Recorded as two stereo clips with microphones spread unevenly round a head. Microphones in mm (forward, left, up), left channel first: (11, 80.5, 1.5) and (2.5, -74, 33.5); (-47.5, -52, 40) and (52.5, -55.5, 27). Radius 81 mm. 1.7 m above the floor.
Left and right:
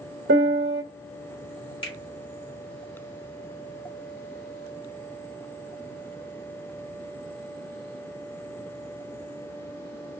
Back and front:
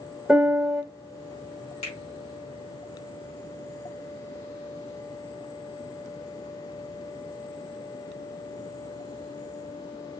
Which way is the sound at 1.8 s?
150° left.